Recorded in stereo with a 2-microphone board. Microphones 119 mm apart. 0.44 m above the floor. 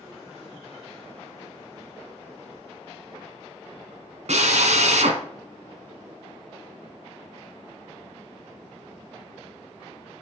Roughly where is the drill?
Right.